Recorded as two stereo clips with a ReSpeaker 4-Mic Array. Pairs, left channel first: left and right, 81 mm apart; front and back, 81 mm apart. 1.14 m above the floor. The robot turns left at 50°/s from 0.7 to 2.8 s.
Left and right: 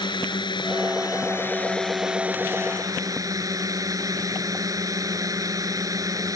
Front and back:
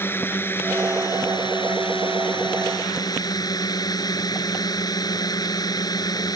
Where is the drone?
65° left; by 6.4 s 40° right.